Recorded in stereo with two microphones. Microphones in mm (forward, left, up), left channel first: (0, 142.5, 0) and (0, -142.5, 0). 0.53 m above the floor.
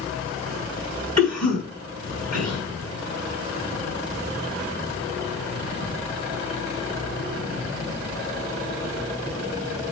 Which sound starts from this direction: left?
A cough, at 1.2 s.